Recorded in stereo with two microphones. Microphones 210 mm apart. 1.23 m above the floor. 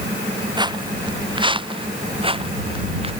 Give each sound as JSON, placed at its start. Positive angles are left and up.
{"t": 0.6, "sound": "footsteps", "side_deg": -20}